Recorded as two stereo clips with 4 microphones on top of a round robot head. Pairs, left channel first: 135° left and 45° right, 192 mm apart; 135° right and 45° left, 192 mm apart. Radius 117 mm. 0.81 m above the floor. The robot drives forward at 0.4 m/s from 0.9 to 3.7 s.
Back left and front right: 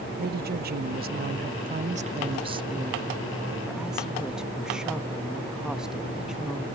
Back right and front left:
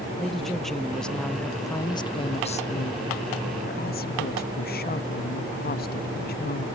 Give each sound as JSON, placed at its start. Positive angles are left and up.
{"t": 0.2, "sound": "a woman speaking", "azimuth_deg": -45}